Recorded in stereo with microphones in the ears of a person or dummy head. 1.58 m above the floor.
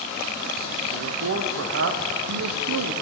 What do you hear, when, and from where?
0.9 s a man speaking: 70° right (ahead or behind), 0.5 m